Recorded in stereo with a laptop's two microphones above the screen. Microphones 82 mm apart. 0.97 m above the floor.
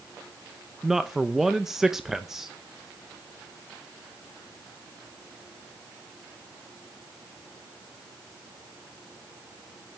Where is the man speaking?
5° right (ahead or behind), 0.5 m.